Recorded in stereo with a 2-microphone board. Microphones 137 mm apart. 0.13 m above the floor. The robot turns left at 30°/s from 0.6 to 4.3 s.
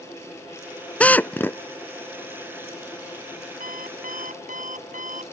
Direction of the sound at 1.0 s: 10° left (ahead or behind).